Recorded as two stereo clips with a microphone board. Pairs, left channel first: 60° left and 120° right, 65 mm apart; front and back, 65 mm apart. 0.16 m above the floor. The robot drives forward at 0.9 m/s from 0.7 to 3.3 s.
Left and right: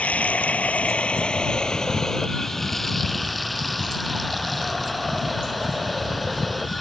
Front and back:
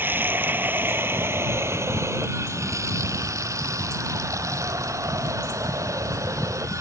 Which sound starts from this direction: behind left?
Running water, at 0.0 s.